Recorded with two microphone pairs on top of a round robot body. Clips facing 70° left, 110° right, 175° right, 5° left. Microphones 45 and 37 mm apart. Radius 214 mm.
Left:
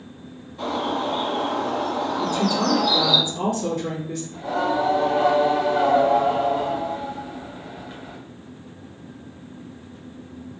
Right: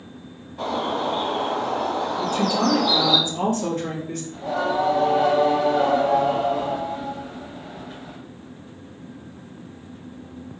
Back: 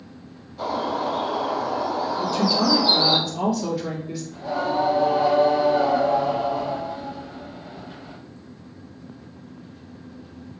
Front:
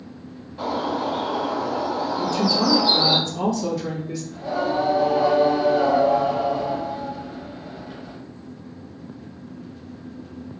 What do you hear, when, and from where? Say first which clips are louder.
0.6 s a bird: even, even; 60° right, 1.4 m
2.2 s a woman speaking: right 1 dB, even; 90° right, 1.7 m
4.3 s singing: even, even; 70° right, 0.7 m